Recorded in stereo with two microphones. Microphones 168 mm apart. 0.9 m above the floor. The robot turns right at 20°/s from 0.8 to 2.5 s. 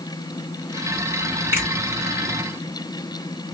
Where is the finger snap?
10° right (ahead or behind), 1.4 m; by 1.7 s 15° right (ahead or behind), 1.4 m.